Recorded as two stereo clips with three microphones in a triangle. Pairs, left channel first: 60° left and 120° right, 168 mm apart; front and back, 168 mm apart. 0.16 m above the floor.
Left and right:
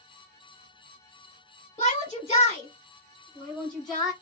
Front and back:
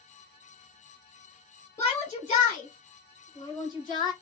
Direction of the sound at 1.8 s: 55° left.